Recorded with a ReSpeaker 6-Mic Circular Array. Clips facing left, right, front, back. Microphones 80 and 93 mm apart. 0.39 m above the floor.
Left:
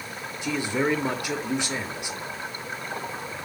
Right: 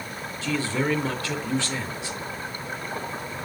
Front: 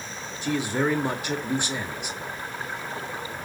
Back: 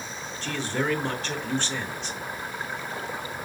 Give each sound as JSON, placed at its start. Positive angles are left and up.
{"t": 0.4, "sound": "a man speaking", "azimuth_deg": 55, "distance_m": 0.9}